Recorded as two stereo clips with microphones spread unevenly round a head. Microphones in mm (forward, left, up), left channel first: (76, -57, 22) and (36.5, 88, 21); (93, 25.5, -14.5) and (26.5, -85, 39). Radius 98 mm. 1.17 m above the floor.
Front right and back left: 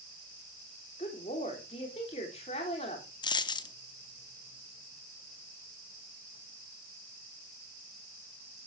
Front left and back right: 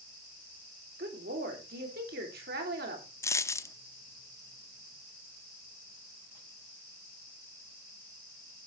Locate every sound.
1.0 s a woman speaking: 135° right, 3 m
3.2 s a dropped coin: 25° right, 0.8 m